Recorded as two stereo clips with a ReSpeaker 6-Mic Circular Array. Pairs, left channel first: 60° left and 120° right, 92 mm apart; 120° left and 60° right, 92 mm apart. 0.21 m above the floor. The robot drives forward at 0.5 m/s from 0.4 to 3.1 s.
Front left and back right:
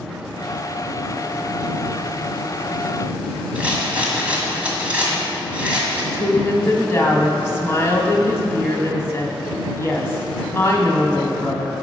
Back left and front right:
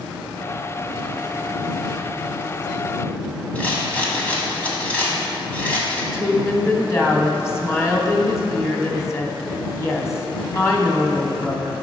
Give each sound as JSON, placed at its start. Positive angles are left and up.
{"t": 3.5, "sound": "a rattle", "azimuth_deg": 180, "distance_m": 1.6}
{"t": 6.1, "sound": "a woman speaking", "azimuth_deg": 95, "distance_m": 1.1}